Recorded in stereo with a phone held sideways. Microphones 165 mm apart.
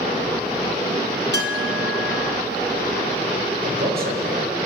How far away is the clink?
About 3.5 m.